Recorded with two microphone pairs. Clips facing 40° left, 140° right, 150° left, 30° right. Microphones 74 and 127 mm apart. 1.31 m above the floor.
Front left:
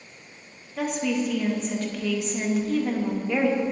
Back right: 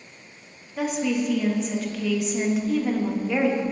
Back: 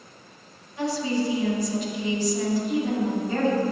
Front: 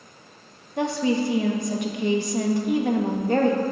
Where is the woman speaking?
55° right, 1.3 m.